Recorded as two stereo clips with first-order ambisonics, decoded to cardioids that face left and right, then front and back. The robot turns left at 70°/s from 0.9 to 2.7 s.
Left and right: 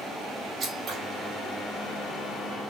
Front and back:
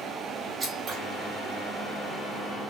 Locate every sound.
0.6 s scissors: 130° right, 1.2 m; by 1.0 s 135° right, 1.2 m